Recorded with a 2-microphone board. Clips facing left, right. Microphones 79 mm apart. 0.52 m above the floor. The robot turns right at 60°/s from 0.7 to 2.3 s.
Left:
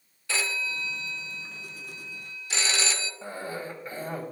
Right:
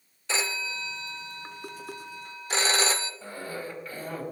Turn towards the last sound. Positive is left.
turn(degrees=25)  # may be behind; listen again after turning